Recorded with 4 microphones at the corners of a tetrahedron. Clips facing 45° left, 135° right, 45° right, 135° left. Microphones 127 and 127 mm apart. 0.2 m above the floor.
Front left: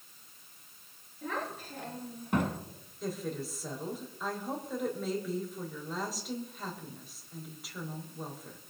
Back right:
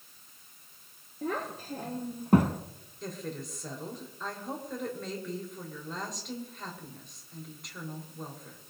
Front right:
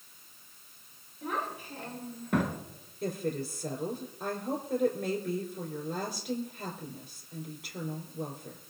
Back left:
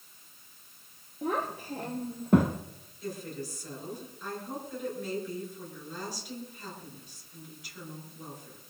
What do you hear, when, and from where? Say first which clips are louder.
1.2 s a child speaking: back right 3 dB, back left 4 dB; 175° right, 2.5 m; by 2.6 s 165° right, 0.9 m
3.0 s a woman speaking: front left 2 dB, front right 5 dB; 40° right, 4 m